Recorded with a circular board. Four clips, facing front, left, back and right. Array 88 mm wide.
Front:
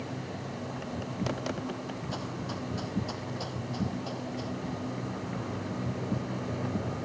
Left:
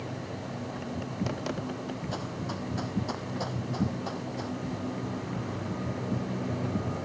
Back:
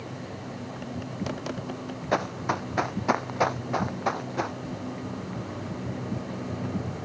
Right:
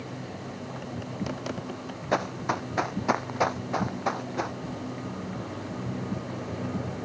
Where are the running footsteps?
140° right; by 4.6 s 150° right.